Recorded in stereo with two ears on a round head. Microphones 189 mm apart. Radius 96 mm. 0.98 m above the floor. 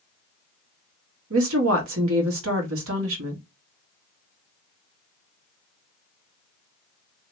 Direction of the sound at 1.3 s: 75° right (ahead or behind).